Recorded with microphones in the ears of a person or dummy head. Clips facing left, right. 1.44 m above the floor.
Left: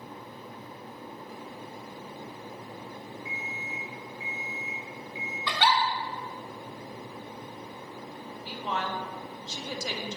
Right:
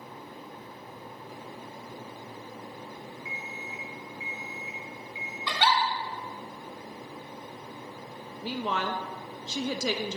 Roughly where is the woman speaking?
Right.